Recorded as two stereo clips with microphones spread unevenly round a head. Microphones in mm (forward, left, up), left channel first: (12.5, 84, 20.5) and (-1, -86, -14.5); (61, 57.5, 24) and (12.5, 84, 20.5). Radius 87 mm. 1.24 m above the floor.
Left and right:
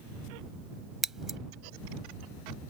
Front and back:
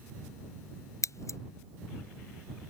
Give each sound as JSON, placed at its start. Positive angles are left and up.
{"t": 1.0, "sound": "scissors", "azimuth_deg": -5}